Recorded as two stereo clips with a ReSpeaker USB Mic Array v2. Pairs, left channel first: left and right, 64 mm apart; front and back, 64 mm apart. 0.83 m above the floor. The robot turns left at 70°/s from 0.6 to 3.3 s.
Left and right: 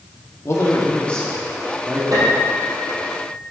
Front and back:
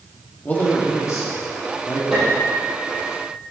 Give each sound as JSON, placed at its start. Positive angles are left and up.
{"t": 0.5, "sound": "a man speaking", "azimuth_deg": 55, "distance_m": 2.0}
{"t": 2.1, "sound": "a piano", "azimuth_deg": -95, "distance_m": 3.5}